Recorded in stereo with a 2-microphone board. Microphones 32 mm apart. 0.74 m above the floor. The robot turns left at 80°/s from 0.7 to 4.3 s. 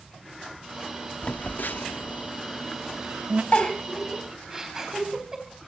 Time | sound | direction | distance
1.2 | a phone buzzing | 45° left (ahead or behind) | 0.5 m
3.5 | a giggle | 45° left (ahead or behind) | 3.5 m